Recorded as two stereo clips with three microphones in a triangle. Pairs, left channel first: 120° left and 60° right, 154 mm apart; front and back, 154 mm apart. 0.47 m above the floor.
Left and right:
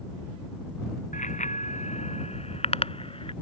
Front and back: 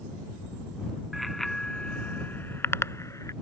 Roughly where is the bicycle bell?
Left.